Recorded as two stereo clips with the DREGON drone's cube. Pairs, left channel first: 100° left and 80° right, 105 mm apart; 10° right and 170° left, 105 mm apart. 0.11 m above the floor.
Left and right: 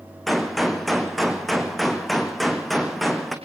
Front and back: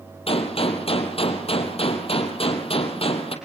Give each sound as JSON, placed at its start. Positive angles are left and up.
{"t": 0.3, "sound": "a gunshot", "azimuth_deg": 10, "distance_m": 3.0}